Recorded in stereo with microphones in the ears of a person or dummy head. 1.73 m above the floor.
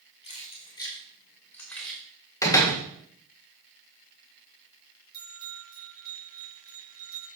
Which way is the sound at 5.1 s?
25° right (ahead or behind).